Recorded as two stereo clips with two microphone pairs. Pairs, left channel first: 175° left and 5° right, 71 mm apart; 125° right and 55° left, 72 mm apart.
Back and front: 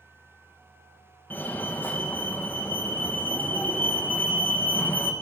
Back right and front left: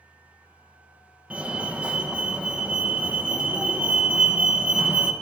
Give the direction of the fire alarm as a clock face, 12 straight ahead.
8 o'clock.